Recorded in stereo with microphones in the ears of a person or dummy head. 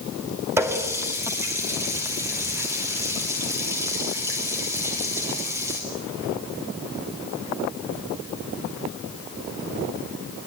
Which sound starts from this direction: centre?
A running tap, at 0.6 s.